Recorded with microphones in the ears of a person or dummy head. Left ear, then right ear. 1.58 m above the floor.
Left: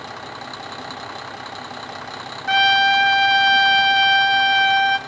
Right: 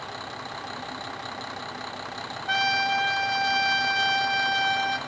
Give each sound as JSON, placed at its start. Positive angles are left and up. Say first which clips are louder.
{"t": 2.5, "sound": "a trumpet", "louder": "left 9 dB", "side_deg": 40, "distance_m": 1.1}